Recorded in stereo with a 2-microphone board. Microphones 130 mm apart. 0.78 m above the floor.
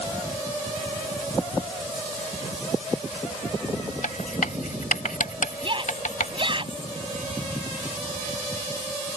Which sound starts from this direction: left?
Writing, at 4.0 s.